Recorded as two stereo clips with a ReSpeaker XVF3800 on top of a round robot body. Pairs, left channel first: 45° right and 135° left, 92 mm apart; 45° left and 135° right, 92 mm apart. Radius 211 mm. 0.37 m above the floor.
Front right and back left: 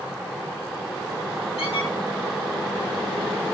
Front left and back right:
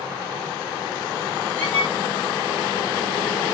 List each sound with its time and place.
1.6 s a squeak: 30° right, 6 m